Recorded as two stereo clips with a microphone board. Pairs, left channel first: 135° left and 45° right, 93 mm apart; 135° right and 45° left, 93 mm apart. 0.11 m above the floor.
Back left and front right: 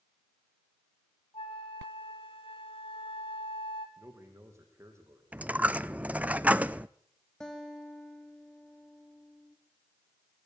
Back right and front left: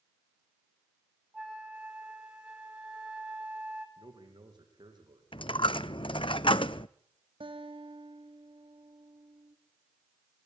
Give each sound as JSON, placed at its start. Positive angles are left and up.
{"t": 1.3, "sound": "a flute", "azimuth_deg": 125, "distance_m": 3.5}
{"t": 4.0, "sound": "a man speaking", "azimuth_deg": 15, "distance_m": 6.5}
{"t": 5.3, "sound": "a dropped coin", "azimuth_deg": -120, "distance_m": 0.5}
{"t": 7.4, "sound": "a guitar", "azimuth_deg": 50, "distance_m": 3.5}